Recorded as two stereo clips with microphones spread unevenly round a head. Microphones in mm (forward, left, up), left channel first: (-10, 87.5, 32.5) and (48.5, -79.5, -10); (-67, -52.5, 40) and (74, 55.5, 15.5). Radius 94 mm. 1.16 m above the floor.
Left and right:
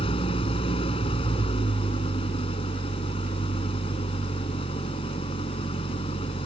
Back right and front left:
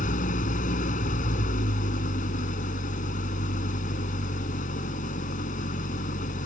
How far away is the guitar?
No guitar in this recording.